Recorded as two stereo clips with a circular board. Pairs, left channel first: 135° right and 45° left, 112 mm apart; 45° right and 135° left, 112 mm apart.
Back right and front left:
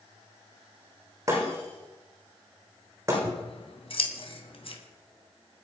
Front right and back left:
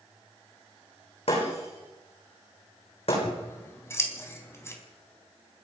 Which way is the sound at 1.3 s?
20° right.